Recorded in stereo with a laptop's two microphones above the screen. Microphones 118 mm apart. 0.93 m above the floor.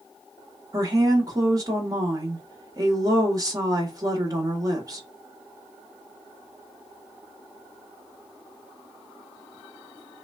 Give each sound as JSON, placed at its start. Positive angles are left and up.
{"t": 0.7, "sound": "a woman speaking", "side_deg": -30, "distance_m": 0.9}